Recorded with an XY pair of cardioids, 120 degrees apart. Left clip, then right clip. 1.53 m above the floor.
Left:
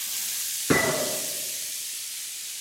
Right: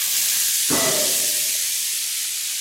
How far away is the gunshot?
About 6 m.